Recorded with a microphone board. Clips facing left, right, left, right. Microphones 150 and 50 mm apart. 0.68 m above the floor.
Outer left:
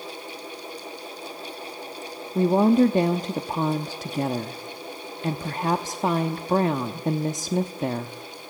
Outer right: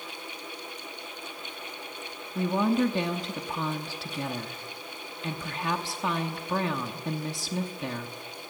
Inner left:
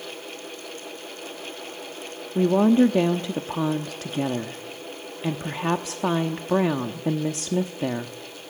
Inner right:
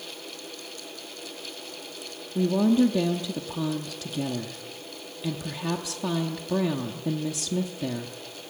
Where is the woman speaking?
40° left (ahead or behind), 0.9 m.